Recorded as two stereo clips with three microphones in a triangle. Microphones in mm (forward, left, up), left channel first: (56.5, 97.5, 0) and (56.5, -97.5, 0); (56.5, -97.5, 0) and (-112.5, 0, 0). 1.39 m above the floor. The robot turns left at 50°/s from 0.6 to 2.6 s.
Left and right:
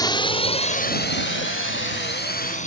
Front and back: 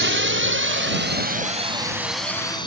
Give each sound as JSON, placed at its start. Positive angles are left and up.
{"t": 0.0, "sound": "a drone", "azimuth_deg": 160}